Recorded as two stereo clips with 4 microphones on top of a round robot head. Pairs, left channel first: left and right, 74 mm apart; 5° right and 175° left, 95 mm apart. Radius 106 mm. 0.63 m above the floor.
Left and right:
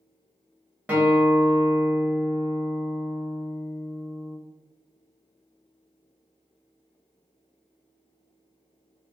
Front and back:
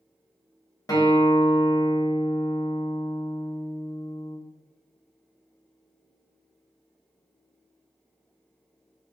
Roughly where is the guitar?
Ahead right.